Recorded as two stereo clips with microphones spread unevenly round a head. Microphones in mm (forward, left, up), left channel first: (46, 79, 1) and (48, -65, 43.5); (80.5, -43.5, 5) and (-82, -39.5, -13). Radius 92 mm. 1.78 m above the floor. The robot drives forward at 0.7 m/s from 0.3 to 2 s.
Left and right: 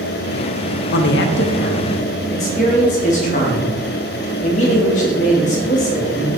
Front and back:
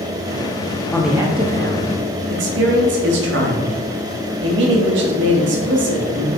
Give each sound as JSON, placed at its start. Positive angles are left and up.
{"t": 0.9, "sound": "a man speaking", "azimuth_deg": 80, "distance_m": 0.5}